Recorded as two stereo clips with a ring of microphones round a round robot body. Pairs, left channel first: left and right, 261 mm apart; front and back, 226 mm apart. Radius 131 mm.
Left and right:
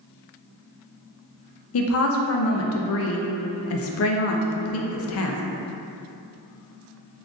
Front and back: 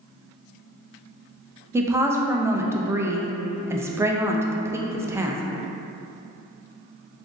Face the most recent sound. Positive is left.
turn(degrees=105)